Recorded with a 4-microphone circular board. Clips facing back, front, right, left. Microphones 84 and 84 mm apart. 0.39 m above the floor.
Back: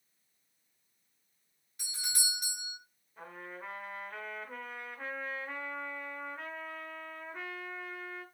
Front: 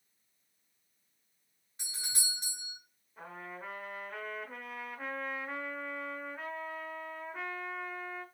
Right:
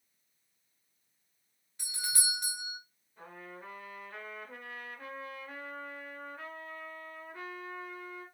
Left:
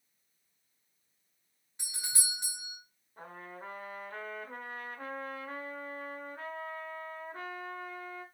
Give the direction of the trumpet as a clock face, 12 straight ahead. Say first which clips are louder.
Front 1 dB, left 2 dB; 9 o'clock.